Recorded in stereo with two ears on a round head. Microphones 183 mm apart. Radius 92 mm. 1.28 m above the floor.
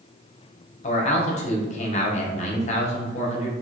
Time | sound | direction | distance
0.8 | a man speaking | 35° left (ahead or behind) | 0.9 m